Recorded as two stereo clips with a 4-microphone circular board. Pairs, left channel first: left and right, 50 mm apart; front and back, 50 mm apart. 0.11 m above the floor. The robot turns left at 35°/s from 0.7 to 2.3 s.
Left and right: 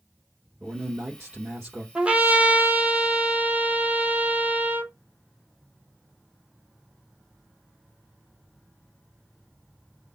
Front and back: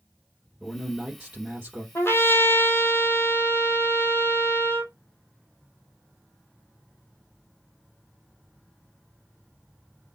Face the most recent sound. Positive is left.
turn(degrees=-30)